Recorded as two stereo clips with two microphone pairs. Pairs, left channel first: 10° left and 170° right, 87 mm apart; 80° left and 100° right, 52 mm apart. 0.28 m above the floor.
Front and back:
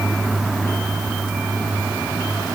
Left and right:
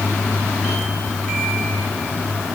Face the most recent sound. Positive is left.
No sound to turn to.